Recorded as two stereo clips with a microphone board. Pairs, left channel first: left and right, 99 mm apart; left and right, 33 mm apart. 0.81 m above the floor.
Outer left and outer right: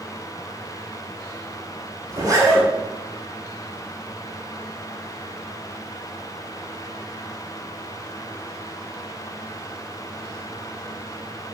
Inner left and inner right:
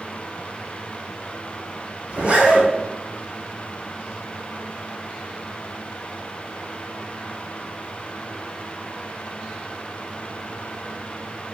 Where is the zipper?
35° right (ahead or behind), 3.5 m.